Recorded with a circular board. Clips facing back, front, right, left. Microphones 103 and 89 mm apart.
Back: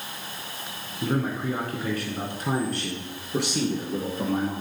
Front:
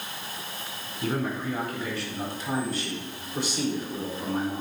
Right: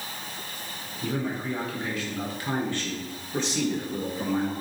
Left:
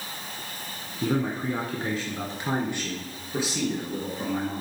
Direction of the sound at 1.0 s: 115° left.